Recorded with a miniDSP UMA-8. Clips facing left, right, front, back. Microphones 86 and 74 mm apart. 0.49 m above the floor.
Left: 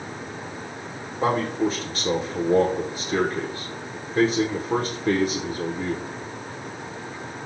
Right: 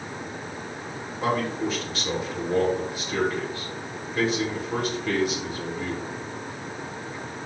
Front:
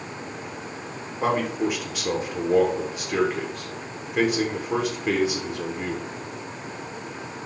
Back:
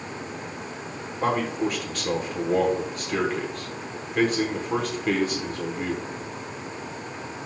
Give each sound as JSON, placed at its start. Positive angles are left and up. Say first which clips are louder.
{"t": 1.2, "sound": "a man speaking", "louder": "left 3 dB, front 1 dB", "azimuth_deg": 75, "distance_m": 1.4}